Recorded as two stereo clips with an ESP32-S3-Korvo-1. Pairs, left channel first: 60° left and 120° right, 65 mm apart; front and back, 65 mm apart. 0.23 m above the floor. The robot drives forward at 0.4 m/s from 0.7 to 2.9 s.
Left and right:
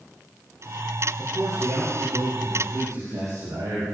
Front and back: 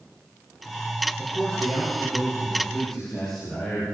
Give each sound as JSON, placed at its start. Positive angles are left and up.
{"t": 1.2, "sound": "a man speaking", "azimuth_deg": -80, "distance_m": 10.0}